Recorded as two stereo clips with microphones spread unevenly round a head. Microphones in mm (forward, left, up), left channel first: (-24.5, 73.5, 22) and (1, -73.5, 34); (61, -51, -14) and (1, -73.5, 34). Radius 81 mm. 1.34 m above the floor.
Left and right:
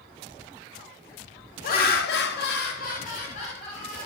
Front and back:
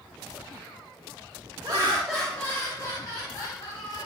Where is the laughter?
130° left, 0.6 m; by 4.1 s 45° left, 1.3 m.